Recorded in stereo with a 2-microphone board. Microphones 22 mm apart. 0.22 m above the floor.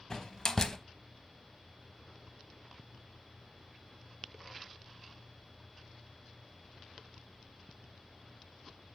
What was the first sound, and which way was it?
A door slam, 30° left (ahead or behind).